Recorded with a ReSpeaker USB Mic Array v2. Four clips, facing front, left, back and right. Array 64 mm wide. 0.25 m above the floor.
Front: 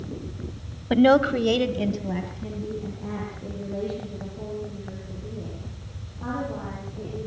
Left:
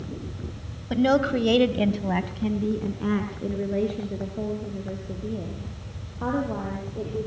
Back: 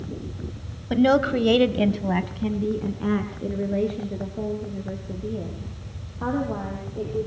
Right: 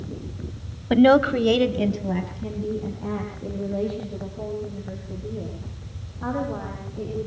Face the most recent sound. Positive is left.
turn(degrees=140)